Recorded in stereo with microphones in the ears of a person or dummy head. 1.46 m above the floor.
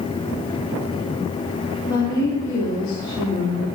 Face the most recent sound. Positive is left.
turn(degrees=25)  # may be behind; listen again after turning